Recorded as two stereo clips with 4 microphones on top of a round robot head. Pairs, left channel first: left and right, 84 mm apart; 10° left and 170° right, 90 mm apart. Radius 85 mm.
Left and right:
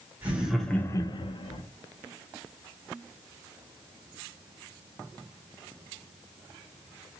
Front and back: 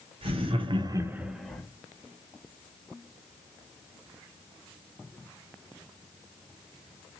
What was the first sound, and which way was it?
Laughter, 165° right.